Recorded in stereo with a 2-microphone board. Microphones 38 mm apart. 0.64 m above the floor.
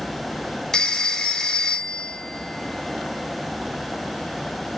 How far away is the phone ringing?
About 1.2 m.